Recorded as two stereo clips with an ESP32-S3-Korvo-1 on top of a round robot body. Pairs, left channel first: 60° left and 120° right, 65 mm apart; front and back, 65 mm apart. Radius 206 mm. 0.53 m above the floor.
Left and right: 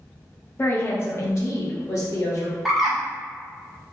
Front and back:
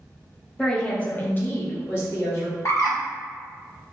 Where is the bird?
30° right, 1.0 m.